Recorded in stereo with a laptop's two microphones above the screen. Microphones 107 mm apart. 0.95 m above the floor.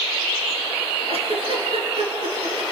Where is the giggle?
65° right (ahead or behind), 3.5 m.